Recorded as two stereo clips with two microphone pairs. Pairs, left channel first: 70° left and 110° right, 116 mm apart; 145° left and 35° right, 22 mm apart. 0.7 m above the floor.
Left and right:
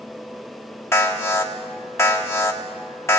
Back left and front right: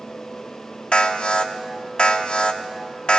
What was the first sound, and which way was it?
An alarm, 130° left.